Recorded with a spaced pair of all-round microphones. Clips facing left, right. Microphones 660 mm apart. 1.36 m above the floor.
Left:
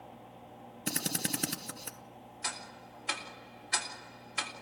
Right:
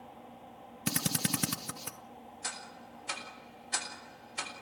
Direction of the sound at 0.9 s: 35° right (ahead or behind).